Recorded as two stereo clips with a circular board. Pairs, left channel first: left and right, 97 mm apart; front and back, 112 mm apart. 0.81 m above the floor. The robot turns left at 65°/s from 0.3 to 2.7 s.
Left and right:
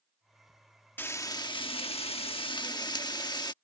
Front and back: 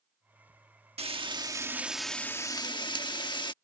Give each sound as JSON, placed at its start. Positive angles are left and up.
{"t": 1.0, "sound": "frying", "azimuth_deg": 160}